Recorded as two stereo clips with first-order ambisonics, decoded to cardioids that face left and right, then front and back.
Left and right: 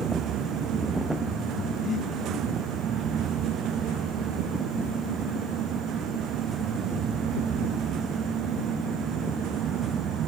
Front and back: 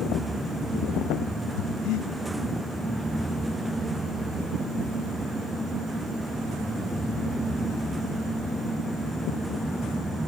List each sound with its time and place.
1.6 s breathing: 35° left, 1.6 m